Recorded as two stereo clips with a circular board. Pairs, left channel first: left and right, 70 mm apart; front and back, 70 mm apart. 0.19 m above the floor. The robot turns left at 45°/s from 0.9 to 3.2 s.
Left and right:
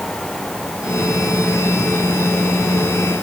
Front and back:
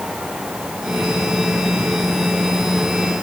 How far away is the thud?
No thud in this recording.